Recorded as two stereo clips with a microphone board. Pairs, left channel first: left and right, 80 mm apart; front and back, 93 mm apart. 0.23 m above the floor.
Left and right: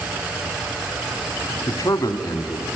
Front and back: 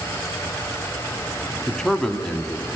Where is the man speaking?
80° left, 1.3 m.